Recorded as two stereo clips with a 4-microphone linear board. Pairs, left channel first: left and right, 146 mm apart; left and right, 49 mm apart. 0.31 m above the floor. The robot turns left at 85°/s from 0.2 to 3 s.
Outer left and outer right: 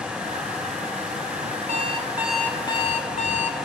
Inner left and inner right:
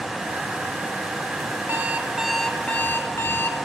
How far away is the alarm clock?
About 1.1 m.